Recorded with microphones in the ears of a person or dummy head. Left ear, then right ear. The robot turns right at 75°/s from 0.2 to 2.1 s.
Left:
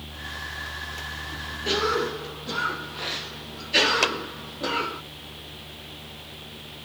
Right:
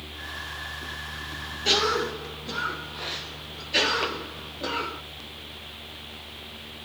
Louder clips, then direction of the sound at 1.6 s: Right 1 dB; 35° right.